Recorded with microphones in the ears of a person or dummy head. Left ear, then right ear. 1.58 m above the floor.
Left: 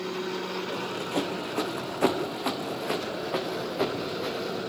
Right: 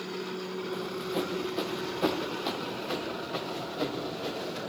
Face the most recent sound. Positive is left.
turn(degrees=60)  # may be behind; listen again after turning